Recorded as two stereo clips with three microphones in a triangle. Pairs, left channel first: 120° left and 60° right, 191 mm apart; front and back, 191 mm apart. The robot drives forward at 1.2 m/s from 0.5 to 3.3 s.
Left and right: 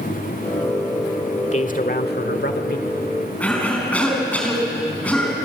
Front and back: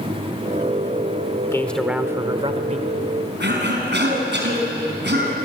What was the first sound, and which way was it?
A man speaking, 70° left.